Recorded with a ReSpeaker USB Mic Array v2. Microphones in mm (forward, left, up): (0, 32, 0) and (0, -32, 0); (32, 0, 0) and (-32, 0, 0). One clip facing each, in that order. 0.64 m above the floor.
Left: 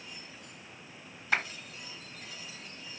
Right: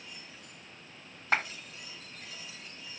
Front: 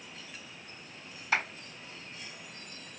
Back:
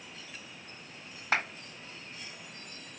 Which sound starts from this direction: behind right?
A clap, at 1.3 s.